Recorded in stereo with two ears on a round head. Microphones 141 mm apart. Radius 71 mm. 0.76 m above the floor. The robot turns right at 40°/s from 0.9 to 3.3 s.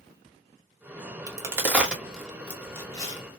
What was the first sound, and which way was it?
A crack, 20° right (ahead or behind).